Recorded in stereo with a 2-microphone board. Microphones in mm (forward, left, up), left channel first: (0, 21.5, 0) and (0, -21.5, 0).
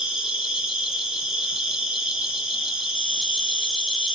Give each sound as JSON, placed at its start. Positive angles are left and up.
{"t": 0.0, "sound": "an insect", "side_deg": -10, "distance_m": 0.9}